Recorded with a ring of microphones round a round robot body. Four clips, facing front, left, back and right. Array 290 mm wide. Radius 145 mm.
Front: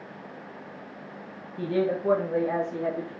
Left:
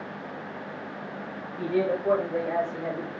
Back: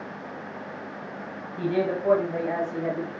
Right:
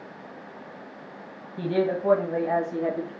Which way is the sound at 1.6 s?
115° right.